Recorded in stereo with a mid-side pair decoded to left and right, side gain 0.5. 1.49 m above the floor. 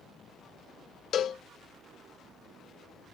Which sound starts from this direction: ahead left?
A cowbell, at 1.1 s.